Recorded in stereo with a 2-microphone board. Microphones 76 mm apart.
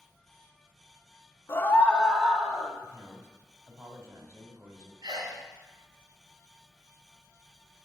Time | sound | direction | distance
1.5 | a scream | 35° left (ahead or behind) | 1.2 m
2.8 | a man speaking | 40° right (ahead or behind) | 2 m
5.0 | a sneeze | 60° right (ahead or behind) | 2.5 m